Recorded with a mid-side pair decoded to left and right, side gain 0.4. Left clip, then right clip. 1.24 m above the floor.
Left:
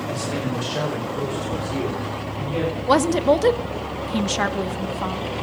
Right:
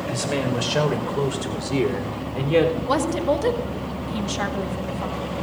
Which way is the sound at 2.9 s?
45° left.